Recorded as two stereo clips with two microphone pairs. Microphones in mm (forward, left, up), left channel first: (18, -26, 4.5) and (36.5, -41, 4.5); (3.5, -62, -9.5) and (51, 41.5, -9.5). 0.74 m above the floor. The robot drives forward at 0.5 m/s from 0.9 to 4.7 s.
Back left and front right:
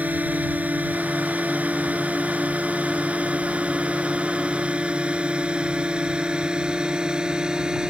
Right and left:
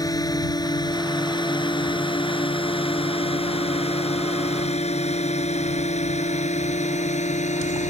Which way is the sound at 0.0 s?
55° right.